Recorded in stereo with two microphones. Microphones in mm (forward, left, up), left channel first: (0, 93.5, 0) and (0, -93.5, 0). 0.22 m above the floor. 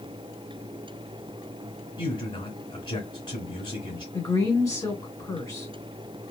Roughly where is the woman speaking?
Centre.